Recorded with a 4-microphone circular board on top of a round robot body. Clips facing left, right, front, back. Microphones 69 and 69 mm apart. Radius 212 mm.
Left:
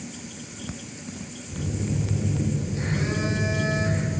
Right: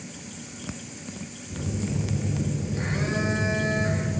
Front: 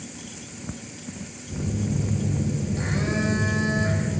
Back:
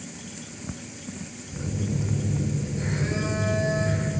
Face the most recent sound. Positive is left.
turn(degrees=-25)